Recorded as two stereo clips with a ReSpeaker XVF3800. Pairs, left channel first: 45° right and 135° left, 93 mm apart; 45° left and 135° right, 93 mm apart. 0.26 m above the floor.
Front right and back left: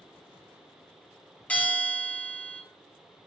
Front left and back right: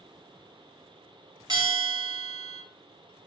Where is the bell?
115° right, 2.5 m.